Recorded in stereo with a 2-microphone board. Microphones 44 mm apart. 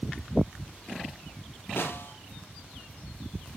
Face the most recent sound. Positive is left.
turn(degrees=70)  # may be behind; listen again after turning